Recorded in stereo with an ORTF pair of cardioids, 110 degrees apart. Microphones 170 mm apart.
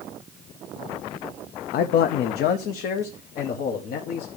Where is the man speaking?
65° left, 0.6 m; by 4.4 s 75° left, 2.0 m.